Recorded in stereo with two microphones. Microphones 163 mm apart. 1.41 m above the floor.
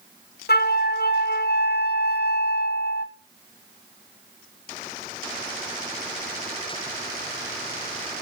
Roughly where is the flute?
Left.